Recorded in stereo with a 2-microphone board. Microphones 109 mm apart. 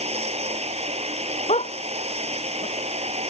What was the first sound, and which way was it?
Running water, 75° right (ahead or behind).